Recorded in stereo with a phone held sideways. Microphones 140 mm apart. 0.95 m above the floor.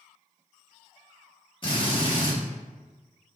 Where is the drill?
30° left (ahead or behind), 1.9 m.